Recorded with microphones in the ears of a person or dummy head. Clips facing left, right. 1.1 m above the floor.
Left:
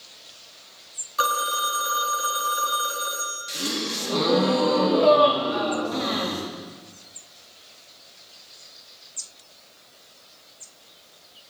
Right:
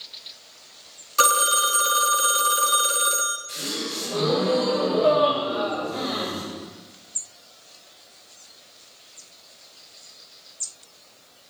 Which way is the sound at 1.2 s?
35° right (ahead or behind).